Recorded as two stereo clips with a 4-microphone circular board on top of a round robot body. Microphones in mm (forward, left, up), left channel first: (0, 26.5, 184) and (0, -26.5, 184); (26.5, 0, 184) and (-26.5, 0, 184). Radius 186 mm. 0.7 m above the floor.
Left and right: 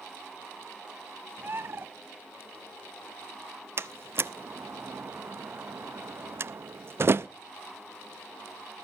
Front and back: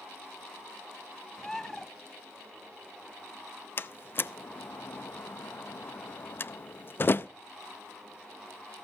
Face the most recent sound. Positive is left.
turn(degrees=-50)